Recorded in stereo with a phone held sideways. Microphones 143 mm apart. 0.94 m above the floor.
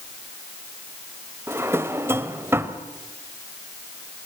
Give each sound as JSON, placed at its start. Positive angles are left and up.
{"t": 1.5, "sound": "a drawer", "side_deg": -15, "distance_m": 1.1}